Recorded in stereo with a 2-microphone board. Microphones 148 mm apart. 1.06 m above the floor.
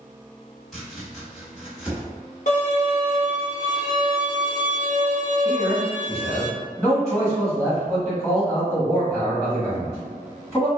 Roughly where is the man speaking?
Centre.